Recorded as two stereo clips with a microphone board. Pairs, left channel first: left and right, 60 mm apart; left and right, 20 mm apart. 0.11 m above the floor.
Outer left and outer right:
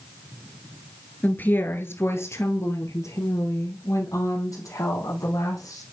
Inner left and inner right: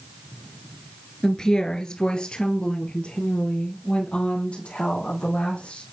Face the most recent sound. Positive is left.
turn(degrees=75)  # may be behind; listen again after turning